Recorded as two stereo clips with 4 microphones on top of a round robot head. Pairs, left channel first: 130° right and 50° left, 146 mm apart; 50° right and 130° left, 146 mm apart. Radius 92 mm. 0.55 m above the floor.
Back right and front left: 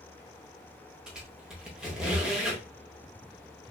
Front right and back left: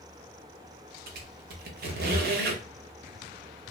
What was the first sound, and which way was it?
A squeak, 135° left.